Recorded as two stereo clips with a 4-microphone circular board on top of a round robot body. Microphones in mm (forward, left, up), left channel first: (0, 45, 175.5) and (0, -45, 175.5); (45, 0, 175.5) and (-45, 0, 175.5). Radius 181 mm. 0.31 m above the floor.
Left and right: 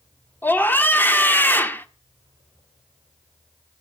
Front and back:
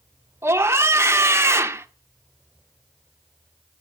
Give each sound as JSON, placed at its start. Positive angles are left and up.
{"t": 0.4, "sound": "a scream", "azimuth_deg": 145, "distance_m": 1.5}